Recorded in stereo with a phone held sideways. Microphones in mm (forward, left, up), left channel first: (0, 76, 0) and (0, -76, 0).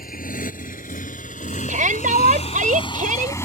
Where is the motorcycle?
75° left (ahead or behind); by 3.5 s 15° left (ahead or behind).